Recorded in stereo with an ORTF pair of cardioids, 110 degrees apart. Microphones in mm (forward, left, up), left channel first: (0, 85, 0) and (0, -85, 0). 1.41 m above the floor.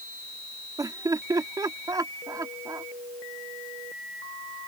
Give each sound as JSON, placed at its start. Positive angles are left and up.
{"t": 0.8, "sound": "laughter", "azimuth_deg": -20}